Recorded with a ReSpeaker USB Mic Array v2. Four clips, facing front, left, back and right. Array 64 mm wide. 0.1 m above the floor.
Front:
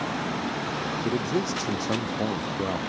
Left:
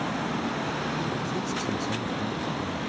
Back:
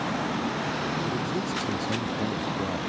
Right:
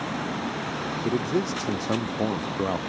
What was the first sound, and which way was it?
A man speaking, 60° right.